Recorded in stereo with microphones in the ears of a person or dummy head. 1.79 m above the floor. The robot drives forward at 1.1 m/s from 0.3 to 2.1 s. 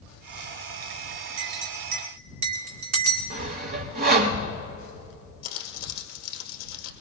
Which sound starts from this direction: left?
Crumpling, at 5.4 s.